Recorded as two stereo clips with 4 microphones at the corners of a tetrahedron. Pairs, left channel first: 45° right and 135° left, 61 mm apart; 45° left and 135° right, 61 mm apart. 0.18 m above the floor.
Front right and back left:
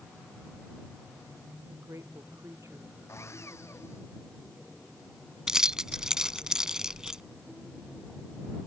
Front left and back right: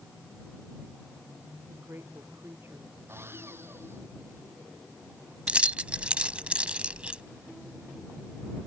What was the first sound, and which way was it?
A woman speaking, 170° left.